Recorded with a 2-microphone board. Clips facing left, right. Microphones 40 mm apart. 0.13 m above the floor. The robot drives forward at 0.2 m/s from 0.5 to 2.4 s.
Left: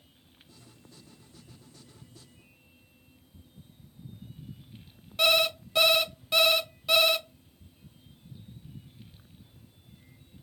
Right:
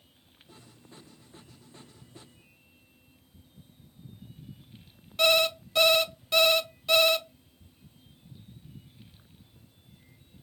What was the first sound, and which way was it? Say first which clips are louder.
An alarm clock: right 1 dB; 5° left (ahead or behind).